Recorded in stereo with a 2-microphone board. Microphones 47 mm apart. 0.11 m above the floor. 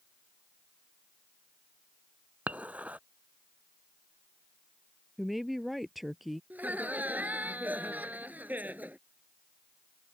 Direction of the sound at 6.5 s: 40° right (ahead or behind).